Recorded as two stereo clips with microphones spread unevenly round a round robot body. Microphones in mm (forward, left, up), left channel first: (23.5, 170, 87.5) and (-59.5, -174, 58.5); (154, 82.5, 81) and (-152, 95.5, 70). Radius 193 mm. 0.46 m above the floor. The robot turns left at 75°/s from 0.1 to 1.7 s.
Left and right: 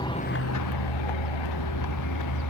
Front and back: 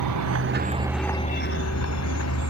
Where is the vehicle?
155° left; by 2.5 s 35° left.